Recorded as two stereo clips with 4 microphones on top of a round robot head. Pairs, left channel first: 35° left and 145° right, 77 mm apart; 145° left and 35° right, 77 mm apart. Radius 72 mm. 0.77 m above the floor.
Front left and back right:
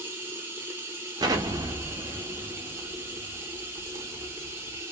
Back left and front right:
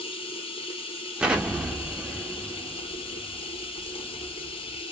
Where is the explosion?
110° right, 1.0 m.